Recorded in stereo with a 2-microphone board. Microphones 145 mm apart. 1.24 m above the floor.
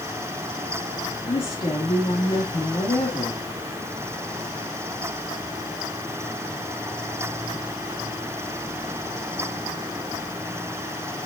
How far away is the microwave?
I don't hear a microwave.